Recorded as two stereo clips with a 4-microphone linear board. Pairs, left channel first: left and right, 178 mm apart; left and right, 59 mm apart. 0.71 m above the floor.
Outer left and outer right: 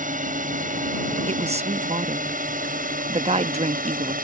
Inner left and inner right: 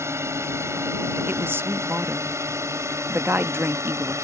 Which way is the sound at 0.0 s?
50° right (ahead or behind).